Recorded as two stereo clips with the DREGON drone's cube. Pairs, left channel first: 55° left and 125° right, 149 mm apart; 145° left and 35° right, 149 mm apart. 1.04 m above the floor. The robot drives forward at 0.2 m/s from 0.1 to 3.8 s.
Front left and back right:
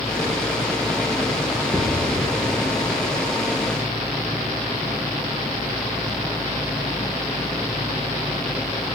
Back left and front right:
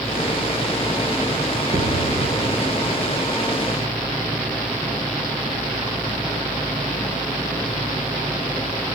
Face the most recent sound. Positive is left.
turn(degrees=-60)